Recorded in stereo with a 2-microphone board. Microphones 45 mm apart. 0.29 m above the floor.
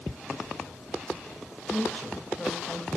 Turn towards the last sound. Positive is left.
turn(degrees=25)  # may be behind; listen again after turning